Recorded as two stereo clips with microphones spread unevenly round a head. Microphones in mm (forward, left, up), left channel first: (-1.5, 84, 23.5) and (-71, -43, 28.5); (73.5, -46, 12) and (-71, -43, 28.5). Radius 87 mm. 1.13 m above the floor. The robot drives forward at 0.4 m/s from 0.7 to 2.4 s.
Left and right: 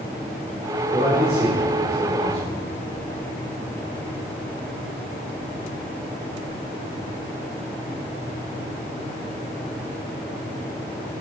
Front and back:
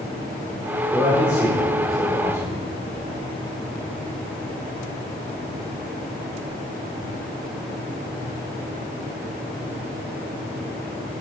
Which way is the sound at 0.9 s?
100° right.